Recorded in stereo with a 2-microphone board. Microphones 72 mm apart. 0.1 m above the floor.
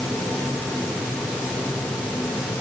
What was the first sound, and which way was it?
Only background noise.